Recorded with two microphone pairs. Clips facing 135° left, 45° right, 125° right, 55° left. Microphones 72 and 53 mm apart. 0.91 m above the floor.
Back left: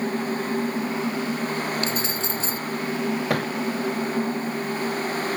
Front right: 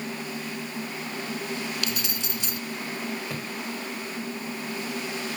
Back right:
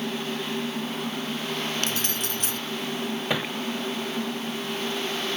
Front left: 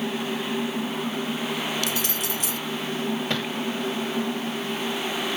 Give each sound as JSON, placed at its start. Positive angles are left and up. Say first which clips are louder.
{"t": 1.8, "sound": "keys jangling", "louder": "back left 6 dB, front left 1 dB", "azimuth_deg": -170}
{"t": 3.3, "sound": "a thud", "louder": "back left 10 dB, even", "azimuth_deg": 160}